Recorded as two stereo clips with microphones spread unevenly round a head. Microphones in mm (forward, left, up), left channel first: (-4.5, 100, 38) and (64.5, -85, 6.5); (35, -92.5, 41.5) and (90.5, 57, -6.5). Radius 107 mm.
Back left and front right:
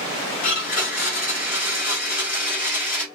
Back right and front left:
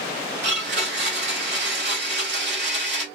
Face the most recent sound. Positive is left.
turn(degrees=100)